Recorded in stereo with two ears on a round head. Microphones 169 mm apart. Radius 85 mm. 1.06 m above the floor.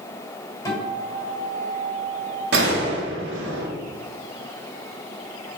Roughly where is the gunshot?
Right.